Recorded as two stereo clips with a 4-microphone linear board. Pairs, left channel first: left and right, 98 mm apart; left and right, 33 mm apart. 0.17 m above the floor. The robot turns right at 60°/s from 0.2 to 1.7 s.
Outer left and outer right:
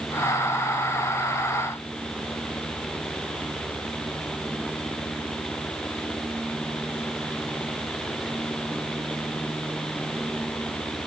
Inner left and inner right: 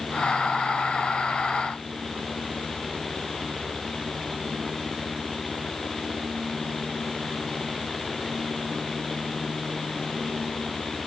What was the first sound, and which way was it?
Only background noise.